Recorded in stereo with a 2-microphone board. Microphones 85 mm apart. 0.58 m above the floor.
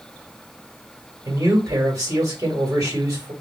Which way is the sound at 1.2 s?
45° right (ahead or behind).